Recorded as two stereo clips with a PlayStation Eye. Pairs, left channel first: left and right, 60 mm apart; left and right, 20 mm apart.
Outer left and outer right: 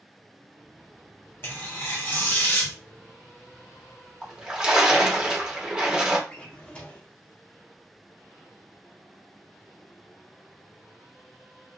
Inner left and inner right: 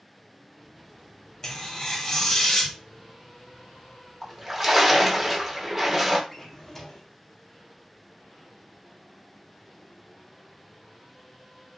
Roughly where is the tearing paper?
Left.